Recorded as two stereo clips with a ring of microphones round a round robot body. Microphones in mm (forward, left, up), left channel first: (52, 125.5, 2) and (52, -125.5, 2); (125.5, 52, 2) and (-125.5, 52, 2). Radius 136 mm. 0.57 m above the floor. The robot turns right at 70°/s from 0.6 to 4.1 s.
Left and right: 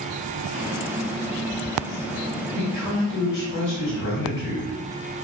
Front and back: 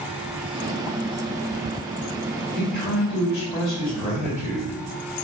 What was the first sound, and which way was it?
A man speaking, straight ahead.